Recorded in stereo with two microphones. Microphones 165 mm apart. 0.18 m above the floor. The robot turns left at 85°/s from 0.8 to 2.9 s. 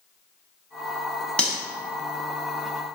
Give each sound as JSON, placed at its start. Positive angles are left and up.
{"t": 1.4, "sound": "cutlery clinking", "side_deg": 5, "distance_m": 0.8}